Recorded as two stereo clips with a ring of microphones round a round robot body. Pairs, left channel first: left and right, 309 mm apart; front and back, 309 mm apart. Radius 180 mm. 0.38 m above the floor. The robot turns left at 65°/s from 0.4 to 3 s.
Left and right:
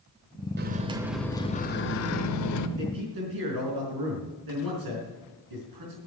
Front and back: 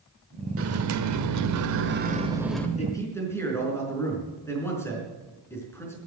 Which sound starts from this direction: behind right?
A microwave, at 0.6 s.